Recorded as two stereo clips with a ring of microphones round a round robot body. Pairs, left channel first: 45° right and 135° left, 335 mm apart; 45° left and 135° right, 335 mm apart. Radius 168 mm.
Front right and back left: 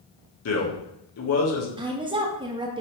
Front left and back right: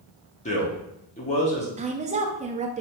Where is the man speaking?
20° right, 1.0 m.